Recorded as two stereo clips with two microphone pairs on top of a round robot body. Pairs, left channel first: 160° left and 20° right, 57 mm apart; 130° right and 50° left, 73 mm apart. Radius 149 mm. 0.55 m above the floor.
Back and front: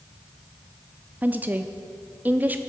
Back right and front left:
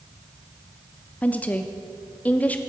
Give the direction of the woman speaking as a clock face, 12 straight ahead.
2 o'clock.